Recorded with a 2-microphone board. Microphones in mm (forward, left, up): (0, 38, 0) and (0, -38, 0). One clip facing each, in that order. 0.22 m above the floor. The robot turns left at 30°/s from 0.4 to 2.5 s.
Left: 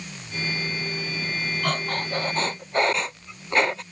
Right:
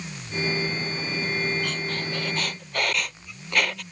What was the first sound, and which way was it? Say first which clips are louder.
Breathing: left 3 dB; 50° left (ahead or behind).